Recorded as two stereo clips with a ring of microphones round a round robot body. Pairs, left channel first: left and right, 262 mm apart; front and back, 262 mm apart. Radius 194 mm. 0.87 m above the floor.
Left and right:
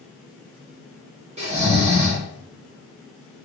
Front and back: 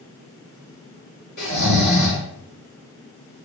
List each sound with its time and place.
1.4 s snoring: 25° right, 1.4 m